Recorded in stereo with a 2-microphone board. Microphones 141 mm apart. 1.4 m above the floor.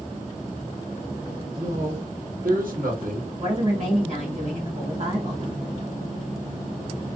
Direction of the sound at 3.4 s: 50° right (ahead or behind).